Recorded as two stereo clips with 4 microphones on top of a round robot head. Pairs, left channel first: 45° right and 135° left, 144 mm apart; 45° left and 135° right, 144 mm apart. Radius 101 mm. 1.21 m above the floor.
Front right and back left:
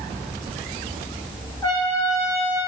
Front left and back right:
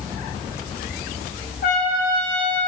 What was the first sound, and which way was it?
A trumpet, 20° left.